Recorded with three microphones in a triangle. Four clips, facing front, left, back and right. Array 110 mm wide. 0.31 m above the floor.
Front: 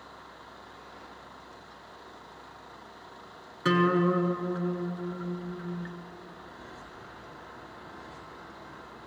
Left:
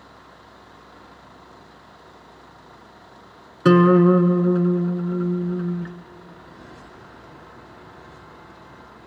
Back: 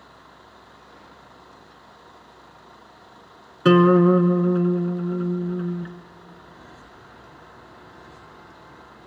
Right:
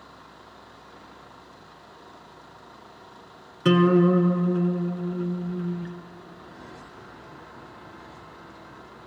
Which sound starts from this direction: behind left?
A guitar, at 3.6 s.